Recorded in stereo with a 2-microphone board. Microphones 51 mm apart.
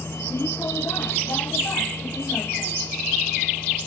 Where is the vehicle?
55° left (ahead or behind); by 3.9 s 60° left (ahead or behind).